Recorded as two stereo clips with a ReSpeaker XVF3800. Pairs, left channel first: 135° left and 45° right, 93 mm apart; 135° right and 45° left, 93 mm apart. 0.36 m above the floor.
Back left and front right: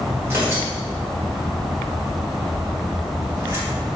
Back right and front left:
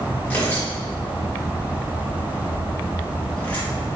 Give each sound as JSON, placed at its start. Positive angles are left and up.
{"t": 0.2, "sound": "tearing paper", "azimuth_deg": -80, "distance_m": 1.7}